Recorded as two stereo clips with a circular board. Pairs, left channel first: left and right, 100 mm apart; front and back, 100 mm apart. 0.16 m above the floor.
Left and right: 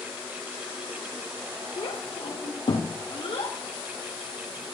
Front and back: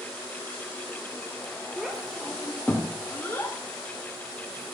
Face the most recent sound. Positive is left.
turn(degrees=55)